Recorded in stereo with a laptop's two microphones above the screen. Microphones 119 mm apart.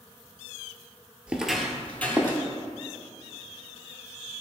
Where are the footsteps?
10° right (ahead or behind), 1.1 m; by 2.4 s 15° left (ahead or behind), 1.9 m.